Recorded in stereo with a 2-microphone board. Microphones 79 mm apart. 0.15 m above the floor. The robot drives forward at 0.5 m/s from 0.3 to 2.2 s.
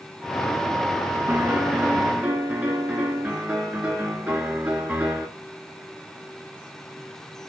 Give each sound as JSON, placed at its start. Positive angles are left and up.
{"t": 1.3, "sound": "a piano", "side_deg": -25, "distance_m": 1.2}